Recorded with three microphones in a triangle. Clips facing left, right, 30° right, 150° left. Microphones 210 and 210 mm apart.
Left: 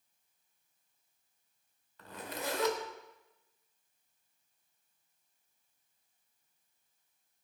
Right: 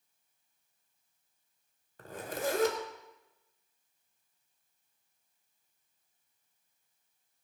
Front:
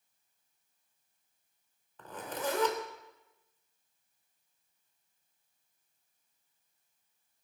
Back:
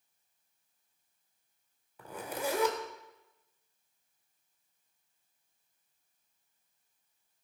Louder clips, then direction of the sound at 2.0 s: Right 5 dB, back 1 dB; 130° right.